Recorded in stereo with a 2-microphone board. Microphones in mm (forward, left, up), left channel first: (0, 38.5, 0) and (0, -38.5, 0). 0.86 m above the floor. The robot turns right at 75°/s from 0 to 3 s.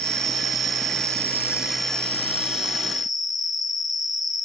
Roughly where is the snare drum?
No snare drum in this recording.